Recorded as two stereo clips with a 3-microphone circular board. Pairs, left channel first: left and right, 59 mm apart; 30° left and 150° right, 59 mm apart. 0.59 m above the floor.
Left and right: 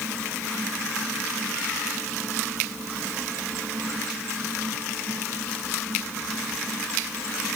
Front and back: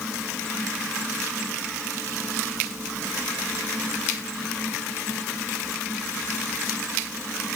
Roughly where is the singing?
No singing in this recording.